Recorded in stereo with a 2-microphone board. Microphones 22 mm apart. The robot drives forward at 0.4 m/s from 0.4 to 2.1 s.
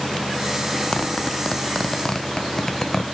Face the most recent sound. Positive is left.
turn(degrees=20)  # may be behind; listen again after turning